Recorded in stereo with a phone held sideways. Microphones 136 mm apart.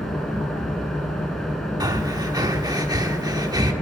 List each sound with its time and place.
0.0 s an engine running: centre (ahead or behind), 2.5 m
1.8 s breathing: 30° right (ahead or behind), 1.3 m